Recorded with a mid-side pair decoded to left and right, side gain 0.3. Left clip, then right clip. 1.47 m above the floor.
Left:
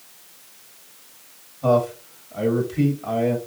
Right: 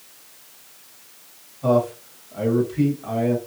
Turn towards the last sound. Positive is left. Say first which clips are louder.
# left 1 dB
turn(degrees=40)